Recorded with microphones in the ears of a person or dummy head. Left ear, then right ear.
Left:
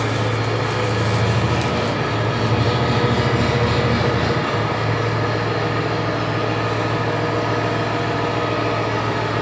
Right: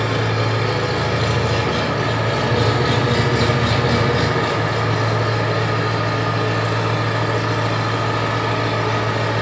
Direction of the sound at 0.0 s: 30° right (ahead or behind).